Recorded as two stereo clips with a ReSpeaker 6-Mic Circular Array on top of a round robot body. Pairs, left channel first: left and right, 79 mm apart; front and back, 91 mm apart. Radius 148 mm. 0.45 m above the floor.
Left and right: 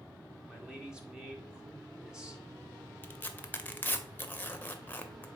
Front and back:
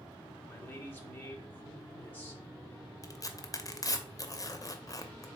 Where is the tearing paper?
30° left, 0.8 m.